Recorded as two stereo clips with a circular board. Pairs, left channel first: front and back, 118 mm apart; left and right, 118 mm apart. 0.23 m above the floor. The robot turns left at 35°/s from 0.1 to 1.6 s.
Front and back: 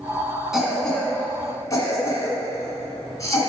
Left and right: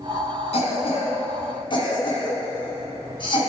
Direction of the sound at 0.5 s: 95° left.